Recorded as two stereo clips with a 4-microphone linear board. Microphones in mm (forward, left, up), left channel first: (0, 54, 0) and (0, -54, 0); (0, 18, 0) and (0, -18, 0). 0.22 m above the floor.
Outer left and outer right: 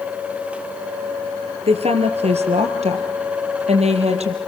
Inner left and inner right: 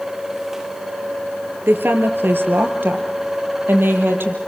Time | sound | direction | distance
1.7 | a woman speaking | 70° right (ahead or behind) | 4 m